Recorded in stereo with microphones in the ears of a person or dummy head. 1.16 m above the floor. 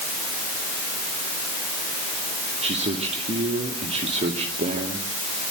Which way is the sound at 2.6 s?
35° right (ahead or behind).